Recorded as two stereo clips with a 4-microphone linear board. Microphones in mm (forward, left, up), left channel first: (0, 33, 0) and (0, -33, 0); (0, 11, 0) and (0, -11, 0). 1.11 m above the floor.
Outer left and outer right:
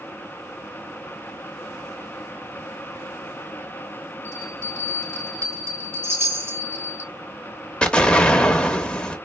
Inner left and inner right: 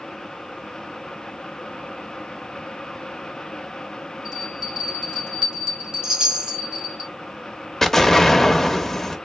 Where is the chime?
40° right (ahead or behind), 3.5 m.